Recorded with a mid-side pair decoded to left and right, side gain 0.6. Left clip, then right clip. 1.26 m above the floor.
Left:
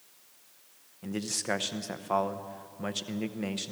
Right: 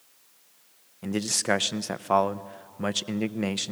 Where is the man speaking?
35° right, 0.7 m.